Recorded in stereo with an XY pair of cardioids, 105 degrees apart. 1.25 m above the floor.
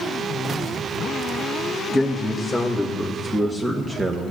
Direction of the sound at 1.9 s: 15° left.